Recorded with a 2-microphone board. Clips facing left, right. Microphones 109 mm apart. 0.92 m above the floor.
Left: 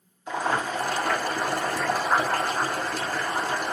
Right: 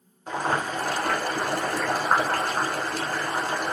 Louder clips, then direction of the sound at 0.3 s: Even; 55° right (ahead or behind).